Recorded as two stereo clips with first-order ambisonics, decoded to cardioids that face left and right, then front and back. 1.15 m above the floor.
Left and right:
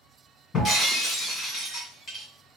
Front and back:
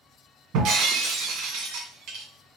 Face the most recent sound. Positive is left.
turn(degrees=155)